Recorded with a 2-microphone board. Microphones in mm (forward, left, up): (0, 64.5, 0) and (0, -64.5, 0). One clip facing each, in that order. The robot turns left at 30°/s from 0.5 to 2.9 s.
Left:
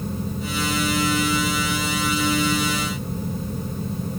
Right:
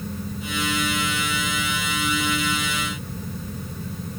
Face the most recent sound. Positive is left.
No sound to turn to.